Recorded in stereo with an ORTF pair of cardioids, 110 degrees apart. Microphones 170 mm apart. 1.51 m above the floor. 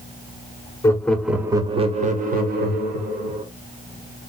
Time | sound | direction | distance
0.8 | laughter | 20° left | 0.6 m